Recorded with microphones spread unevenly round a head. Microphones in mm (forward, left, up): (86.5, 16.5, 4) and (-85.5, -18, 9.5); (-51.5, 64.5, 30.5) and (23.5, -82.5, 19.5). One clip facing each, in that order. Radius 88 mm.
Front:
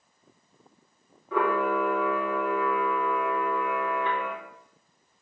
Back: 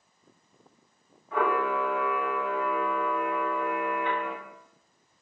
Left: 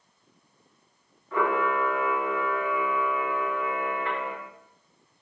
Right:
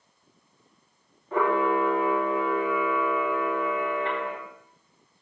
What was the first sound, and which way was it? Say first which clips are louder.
A camera shutter: front 2 dB, right 2 dB; straight ahead.